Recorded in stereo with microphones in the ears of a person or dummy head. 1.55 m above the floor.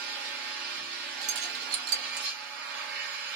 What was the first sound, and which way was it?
An engine running, 55° right (ahead or behind).